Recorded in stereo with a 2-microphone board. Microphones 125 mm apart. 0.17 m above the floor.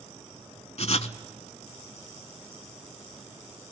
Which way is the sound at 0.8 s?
60° left (ahead or behind).